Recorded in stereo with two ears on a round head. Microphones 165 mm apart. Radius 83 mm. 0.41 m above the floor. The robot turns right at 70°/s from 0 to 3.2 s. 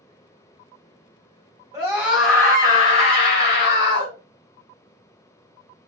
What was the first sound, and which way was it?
A scream, 30° right.